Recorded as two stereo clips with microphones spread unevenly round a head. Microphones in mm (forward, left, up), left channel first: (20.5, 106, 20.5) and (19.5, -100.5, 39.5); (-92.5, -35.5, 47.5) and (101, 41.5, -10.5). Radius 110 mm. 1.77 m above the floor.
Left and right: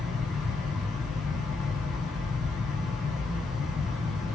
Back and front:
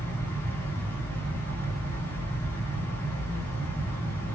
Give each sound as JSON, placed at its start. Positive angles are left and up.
{"t": 0.0, "sound": "a fan", "azimuth_deg": -170, "distance_m": 0.8}